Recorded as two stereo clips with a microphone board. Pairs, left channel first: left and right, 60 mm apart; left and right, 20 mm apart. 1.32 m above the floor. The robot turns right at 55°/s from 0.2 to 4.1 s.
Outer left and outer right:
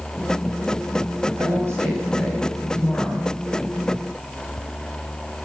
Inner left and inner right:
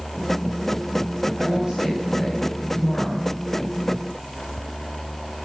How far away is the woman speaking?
About 7.5 m.